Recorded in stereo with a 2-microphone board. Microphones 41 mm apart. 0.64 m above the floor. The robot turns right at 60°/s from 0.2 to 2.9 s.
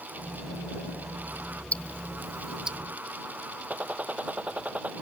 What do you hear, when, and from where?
1.7 s ticking: 40° left (ahead or behind); by 2.8 s 25° right (ahead or behind)
3.7 s a gunshot: 35° right (ahead or behind)